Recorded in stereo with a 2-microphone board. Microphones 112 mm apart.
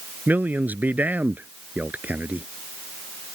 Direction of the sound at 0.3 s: 15° right (ahead or behind).